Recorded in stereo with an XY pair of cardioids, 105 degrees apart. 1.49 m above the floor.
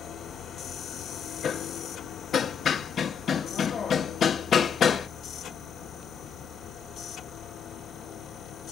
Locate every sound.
0.0 s a machine running: 65° left, 1.0 m
1.4 s hammering: 55° left, 0.9 m